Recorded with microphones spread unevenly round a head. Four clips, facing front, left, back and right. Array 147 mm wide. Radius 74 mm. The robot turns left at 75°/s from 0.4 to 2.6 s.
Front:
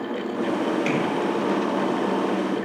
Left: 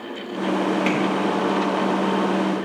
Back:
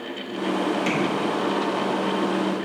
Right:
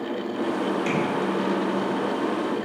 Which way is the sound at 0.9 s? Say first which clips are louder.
Left 3 dB, front 1 dB; 90° left.